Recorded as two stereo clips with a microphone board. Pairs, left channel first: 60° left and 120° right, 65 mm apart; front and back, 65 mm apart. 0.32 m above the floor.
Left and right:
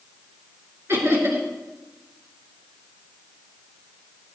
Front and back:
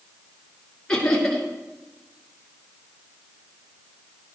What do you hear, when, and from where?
0.9 s laughter: 75° right, 5 m